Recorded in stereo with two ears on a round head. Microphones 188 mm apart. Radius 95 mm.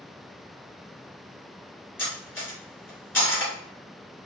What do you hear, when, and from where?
2.0 s cutlery clinking: 10° left (ahead or behind), 1.6 m